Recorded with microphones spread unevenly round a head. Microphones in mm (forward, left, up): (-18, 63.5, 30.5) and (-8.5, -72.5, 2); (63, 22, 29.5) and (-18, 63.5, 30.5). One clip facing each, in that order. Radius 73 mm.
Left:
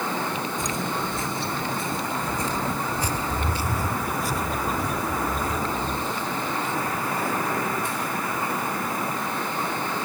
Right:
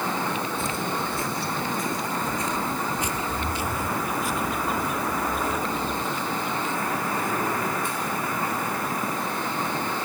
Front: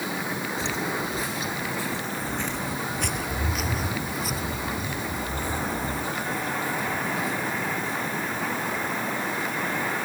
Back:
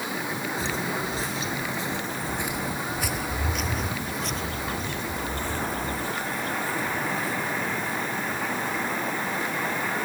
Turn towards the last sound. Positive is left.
turn(degrees=40)